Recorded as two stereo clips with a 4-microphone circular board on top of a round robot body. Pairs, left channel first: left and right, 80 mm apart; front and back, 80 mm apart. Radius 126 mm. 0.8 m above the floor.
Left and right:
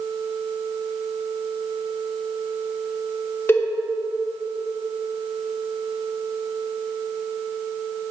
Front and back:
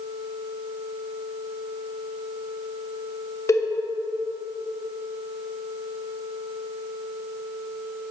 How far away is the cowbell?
About 1.1 m.